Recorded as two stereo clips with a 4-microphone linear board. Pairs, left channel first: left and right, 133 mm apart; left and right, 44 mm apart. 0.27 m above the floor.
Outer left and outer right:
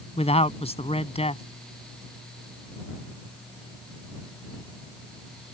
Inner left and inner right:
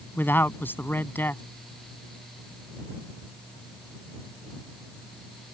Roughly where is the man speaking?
Left.